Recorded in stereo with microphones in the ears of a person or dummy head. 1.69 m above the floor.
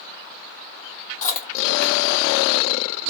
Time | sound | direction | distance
1.2 | chewing | 35° left (ahead or behind) | 1.2 m